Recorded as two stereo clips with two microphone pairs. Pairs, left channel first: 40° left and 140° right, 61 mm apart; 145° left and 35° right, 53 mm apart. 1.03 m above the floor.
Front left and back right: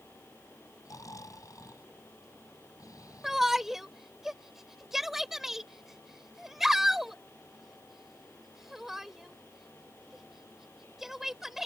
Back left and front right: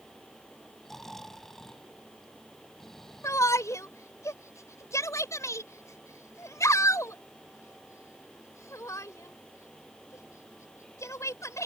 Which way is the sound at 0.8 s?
60° left.